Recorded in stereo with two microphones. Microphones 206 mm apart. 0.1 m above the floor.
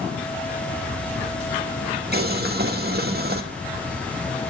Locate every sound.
2.1 s boiling: 50° right (ahead or behind), 1.3 m